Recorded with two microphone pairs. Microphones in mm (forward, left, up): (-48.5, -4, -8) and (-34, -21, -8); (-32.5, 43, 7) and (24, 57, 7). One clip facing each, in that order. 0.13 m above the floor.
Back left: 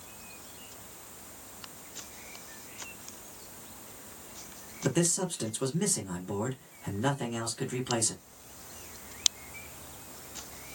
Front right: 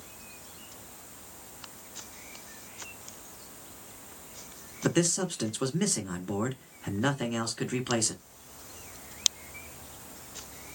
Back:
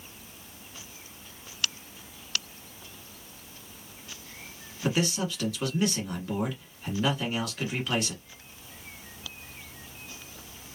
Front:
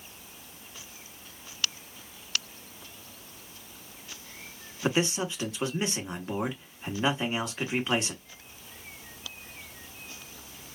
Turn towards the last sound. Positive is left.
turn(degrees=-20)